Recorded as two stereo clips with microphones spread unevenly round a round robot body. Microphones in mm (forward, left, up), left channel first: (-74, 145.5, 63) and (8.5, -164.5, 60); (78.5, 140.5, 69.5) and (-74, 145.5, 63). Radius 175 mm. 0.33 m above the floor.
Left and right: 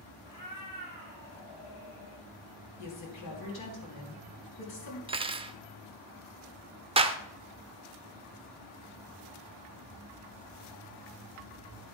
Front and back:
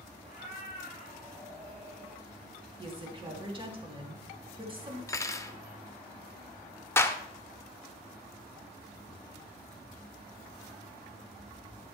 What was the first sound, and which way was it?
A cat meowing, 135° left.